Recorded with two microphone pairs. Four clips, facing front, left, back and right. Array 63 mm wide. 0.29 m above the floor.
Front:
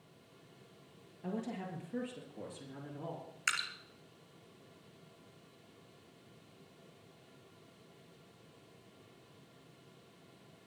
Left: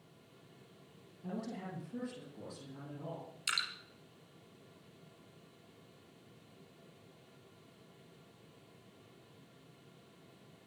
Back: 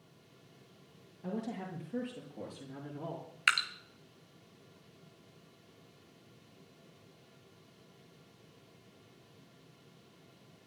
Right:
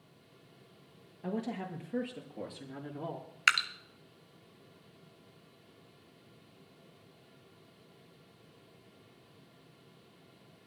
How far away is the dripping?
About 1.4 m.